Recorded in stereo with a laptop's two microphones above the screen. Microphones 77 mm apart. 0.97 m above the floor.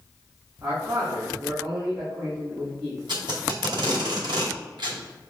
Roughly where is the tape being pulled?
Right.